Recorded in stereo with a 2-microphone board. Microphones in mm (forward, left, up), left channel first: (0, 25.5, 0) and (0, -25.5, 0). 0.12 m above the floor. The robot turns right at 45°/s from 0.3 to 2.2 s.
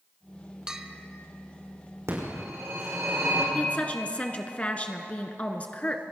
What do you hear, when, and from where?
0.7 s a bell: 15° right (ahead or behind), 0.6 m; by 1.1 s 5° left (ahead or behind), 0.6 m
2.1 s a phone ringing: 70° right (ahead or behind), 5.5 m; by 3.5 s 75° right (ahead or behind), 5.5 m
3.5 s a woman speaking: 25° left (ahead or behind), 1.2 m